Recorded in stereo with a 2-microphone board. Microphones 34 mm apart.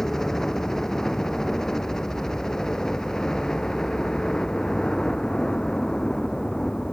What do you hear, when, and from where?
0.0 s a helicopter: 15° left (ahead or behind); by 6.9 s 20° left (ahead or behind)